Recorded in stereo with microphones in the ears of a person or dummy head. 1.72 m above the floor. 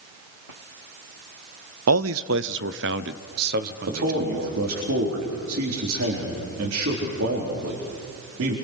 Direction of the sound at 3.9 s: 75° right (ahead or behind).